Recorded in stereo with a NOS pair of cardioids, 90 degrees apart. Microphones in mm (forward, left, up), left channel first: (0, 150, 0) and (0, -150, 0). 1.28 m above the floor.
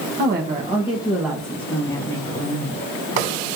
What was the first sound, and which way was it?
A woman speaking, 35° right.